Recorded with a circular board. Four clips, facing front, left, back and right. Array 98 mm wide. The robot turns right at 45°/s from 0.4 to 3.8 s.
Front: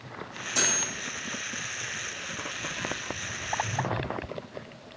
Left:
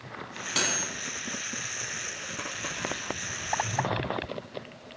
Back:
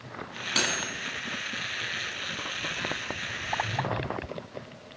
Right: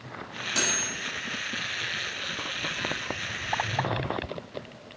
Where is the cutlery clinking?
160° left, 1.1 m; by 0.8 s 175° left, 1.1 m.